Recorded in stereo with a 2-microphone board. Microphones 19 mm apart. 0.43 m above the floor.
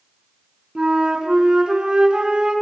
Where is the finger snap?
No finger snap in this recording.